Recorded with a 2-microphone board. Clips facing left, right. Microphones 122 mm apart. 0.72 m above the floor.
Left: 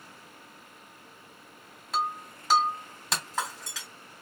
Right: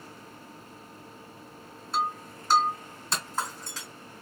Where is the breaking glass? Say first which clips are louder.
Right 1 dB; 80° left, 2.5 m.